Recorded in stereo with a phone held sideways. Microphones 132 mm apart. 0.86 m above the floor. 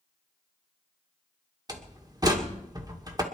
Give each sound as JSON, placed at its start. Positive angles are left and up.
{"t": 1.7, "sound": "a door slam", "side_deg": -30, "distance_m": 2.0}